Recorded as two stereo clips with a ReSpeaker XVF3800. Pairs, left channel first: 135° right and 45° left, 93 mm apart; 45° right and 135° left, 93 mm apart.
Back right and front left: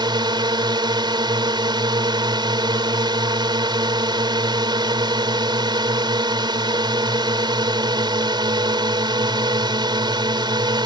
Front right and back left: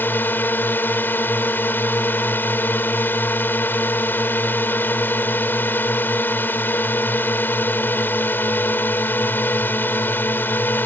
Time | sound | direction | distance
0.0 | a drone | 20° left | ?